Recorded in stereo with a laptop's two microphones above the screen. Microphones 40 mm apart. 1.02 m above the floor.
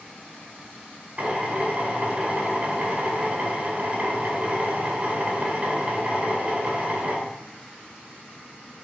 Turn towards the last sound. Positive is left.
turn(degrees=-35)  # may be behind; listen again after turning